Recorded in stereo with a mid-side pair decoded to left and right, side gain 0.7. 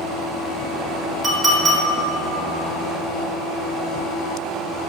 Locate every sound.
1.2 s a clink: 10° right, 1.7 m